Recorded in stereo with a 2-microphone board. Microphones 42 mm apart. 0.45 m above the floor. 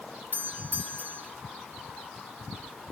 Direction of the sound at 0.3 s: 60° right (ahead or behind).